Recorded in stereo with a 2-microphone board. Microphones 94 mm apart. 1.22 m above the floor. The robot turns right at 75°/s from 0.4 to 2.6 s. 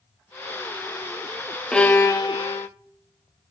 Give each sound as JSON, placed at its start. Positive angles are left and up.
{"t": 1.7, "sound": "a violin", "azimuth_deg": 10, "distance_m": 0.7}